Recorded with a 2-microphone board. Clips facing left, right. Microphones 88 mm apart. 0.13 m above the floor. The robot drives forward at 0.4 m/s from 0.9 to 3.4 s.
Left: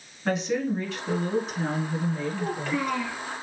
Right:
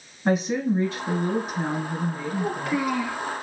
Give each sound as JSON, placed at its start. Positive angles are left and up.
{"t": 0.2, "sound": "a woman speaking", "side_deg": -15, "distance_m": 1.5}
{"t": 2.4, "sound": "a child speaking", "side_deg": -15, "distance_m": 1.6}